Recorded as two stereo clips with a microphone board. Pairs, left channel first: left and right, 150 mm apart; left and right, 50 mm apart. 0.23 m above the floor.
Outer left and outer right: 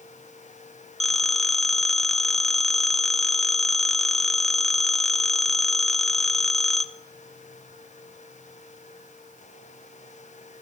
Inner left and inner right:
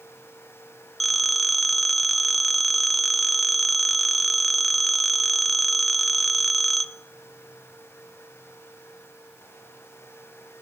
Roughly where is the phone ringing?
Centre.